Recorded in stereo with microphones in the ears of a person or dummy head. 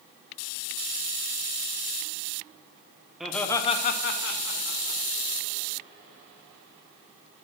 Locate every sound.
3.2 s laughter: centre (ahead or behind), 0.9 m; by 5.0 s 65° left (ahead or behind), 1.4 m